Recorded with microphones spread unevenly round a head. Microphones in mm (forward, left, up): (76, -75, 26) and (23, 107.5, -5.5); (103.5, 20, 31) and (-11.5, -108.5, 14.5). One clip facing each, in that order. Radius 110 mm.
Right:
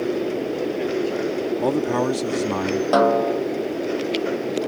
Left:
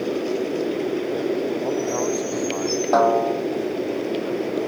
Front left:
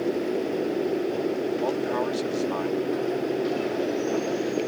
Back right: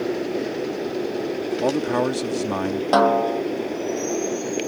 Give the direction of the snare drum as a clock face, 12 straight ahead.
5 o'clock.